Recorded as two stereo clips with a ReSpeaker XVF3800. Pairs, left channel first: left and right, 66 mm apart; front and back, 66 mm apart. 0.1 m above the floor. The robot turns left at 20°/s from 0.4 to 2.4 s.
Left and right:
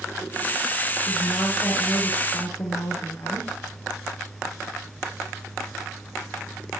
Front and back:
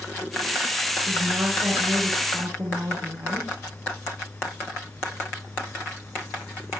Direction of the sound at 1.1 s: 165° left.